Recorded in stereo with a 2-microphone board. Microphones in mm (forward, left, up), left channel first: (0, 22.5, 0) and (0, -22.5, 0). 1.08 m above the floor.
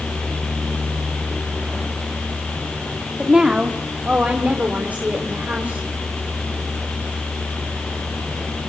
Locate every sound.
3.2 s a woman speaking: 15° right (ahead or behind), 2 m; by 5.9 s 35° right (ahead or behind), 4 m